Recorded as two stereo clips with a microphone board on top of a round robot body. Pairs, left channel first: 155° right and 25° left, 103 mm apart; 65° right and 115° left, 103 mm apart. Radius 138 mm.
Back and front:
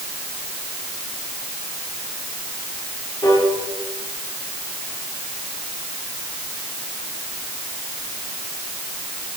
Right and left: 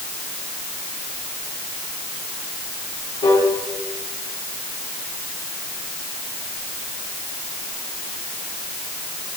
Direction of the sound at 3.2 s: 100° right.